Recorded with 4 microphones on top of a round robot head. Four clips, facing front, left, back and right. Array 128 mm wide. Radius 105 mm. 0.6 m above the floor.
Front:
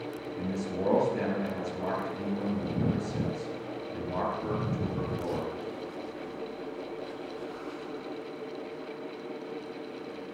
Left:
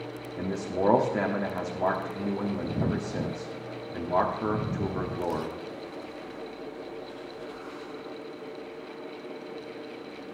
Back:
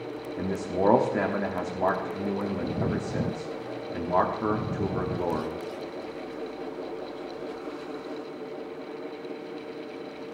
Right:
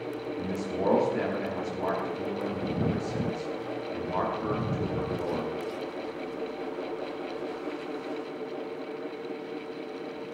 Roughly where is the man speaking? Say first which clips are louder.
Left 4 dB, back 6 dB; behind left.